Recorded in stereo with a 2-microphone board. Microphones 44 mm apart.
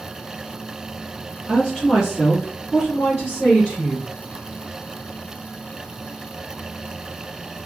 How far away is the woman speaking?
About 2 m.